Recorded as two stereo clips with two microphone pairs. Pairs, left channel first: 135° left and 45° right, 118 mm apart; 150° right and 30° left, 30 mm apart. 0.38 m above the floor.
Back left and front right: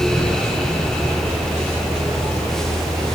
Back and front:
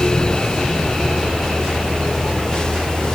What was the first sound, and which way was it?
Only background noise.